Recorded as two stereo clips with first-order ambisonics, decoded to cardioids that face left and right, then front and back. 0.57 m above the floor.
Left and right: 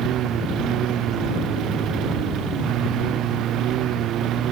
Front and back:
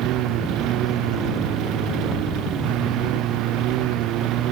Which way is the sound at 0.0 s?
140° right.